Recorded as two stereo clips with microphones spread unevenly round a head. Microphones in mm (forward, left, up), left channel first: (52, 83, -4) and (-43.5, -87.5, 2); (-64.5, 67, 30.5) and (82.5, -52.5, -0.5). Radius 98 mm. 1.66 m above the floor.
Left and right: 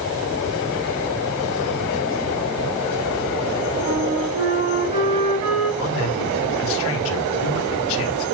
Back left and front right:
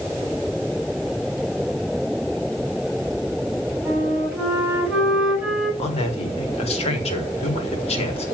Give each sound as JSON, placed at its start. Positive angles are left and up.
{"t": 3.9, "sound": "a flute", "azimuth_deg": -125, "distance_m": 7.0}
{"t": 5.8, "sound": "a man speaking", "azimuth_deg": 80, "distance_m": 4.5}